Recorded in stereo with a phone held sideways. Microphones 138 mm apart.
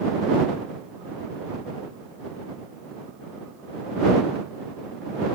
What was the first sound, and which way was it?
Only background noise.